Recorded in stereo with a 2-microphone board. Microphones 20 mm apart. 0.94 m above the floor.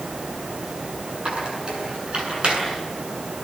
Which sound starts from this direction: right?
A squeak, at 1.2 s.